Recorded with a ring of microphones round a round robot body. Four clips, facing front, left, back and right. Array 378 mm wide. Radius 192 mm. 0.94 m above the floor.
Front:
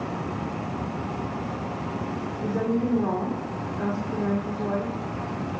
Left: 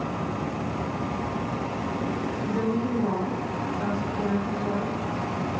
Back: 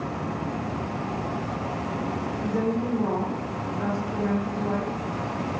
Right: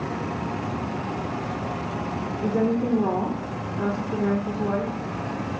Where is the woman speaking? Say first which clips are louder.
Right 5 dB, front 2 dB; 75° right, 1.3 m.